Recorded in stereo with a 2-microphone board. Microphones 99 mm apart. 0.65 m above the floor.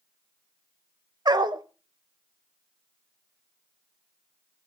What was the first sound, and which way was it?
A dog barking, 45° right (ahead or behind).